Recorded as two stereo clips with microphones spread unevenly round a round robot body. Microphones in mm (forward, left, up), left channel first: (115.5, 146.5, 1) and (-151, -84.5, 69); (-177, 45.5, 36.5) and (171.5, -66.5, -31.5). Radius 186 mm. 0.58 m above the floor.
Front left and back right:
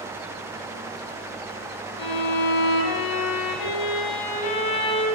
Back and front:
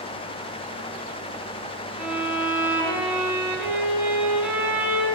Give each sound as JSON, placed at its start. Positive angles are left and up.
{"t": 2.0, "sound": "a violin", "azimuth_deg": 70, "distance_m": 2.5}